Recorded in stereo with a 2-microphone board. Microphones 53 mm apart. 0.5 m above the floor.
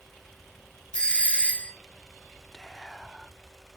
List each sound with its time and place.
0.9 s a doorbell: 20° left (ahead or behind), 1.6 m
2.5 s whispering: 10° left (ahead or behind), 0.8 m